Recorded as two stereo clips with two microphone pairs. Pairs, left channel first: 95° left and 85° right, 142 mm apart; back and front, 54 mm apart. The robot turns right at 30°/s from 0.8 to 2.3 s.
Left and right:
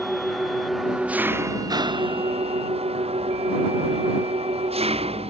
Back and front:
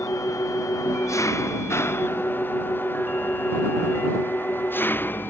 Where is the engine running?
175° right; by 5.3 s 130° right.